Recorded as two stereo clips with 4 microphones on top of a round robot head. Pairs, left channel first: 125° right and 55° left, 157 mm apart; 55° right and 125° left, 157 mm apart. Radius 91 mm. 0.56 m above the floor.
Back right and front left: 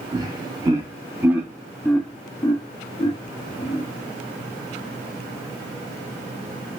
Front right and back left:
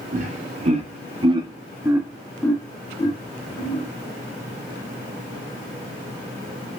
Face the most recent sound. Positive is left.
turn(degrees=-75)